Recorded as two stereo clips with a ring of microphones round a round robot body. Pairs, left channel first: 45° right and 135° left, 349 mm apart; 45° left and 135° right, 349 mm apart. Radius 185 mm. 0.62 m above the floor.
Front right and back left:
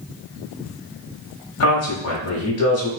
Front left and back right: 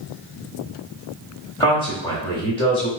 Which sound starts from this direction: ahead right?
A man speaking, at 1.6 s.